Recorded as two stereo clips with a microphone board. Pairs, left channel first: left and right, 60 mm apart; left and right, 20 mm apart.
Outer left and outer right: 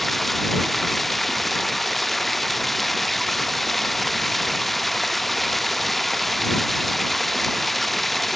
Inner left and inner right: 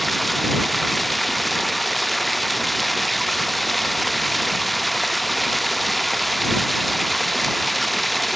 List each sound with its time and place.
0.0 s running water: 5° left (ahead or behind)